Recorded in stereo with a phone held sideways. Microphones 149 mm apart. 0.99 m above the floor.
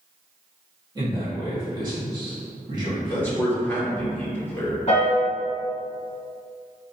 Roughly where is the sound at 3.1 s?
Centre.